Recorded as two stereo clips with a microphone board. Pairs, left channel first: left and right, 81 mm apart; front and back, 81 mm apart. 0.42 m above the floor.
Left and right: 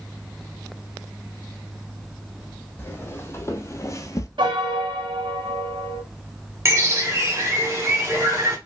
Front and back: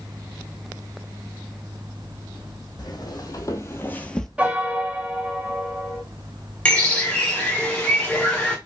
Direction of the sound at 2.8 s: 30° left.